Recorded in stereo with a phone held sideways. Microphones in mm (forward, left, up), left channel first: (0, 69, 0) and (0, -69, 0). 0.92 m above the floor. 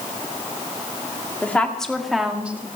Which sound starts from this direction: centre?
A woman speaking, at 1.4 s.